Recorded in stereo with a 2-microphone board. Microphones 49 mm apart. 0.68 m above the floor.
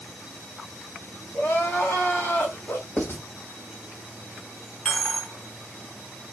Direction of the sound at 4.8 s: 15° left (ahead or behind).